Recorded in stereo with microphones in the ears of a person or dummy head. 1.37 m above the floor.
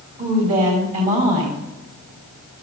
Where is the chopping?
No chopping in this recording.